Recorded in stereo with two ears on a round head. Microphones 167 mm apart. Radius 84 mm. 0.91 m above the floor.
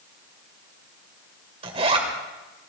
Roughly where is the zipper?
Right.